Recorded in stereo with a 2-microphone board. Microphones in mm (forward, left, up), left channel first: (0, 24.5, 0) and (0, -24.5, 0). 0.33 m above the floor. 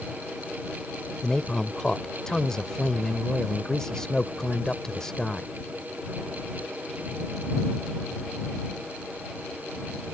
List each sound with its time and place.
1.2 s a man speaking: 15° left (ahead or behind)